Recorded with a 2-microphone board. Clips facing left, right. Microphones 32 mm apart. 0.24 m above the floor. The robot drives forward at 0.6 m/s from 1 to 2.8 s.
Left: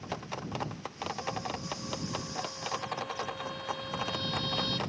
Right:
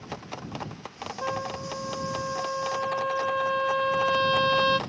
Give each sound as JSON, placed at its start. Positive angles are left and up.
{"t": 1.2, "sound": "a trumpet", "side_deg": -75}